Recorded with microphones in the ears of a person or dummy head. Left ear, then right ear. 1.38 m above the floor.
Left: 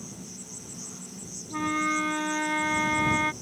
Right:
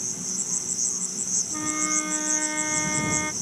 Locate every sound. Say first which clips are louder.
0.0 s an insect: right 12 dB; 50° right (ahead or behind)
1.5 s a flute: left 6 dB; 30° left (ahead or behind)